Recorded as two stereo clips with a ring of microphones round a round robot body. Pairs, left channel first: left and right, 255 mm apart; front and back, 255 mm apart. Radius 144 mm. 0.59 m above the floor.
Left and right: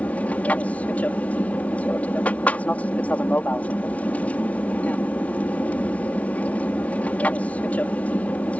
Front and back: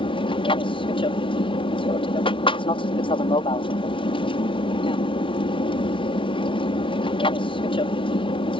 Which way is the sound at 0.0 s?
15° left.